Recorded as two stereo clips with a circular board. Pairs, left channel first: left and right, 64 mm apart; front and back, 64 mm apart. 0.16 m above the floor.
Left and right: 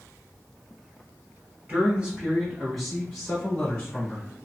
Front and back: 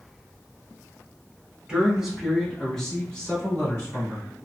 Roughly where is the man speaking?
Behind right.